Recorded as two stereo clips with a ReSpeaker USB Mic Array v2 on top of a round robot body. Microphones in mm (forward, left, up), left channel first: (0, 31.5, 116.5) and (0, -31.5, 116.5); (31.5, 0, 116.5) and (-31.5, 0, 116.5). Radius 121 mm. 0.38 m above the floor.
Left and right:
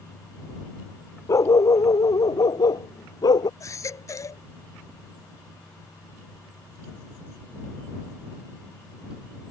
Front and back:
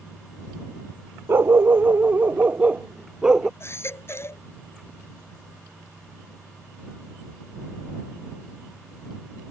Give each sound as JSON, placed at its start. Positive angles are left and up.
{"t": 1.3, "sound": "a dog barking", "azimuth_deg": 125}
{"t": 3.6, "sound": "a baby crying", "azimuth_deg": 50}